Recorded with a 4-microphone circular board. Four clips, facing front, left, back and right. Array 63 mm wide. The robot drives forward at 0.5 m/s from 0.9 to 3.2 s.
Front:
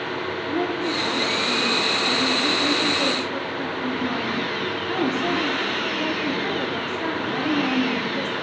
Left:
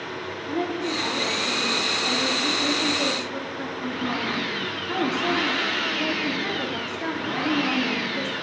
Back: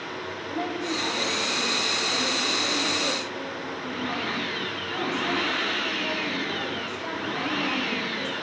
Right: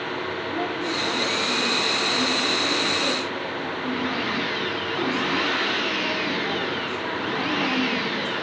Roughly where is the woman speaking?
Ahead left.